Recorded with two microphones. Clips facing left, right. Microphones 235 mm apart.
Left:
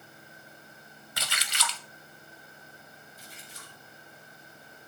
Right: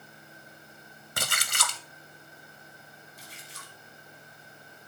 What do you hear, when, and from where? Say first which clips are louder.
1.2 s a splash: right 3 dB; 50° right (ahead or behind), 0.9 m
3.2 s a splash: even; 75° right (ahead or behind), 3 m